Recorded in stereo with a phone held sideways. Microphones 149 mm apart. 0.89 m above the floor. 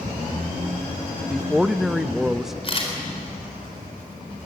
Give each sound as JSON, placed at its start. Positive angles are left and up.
{"t": 1.3, "sound": "a man speaking", "side_deg": -5, "distance_m": 0.7}
{"t": 2.6, "sound": "a camera shutter", "side_deg": 40, "distance_m": 4.0}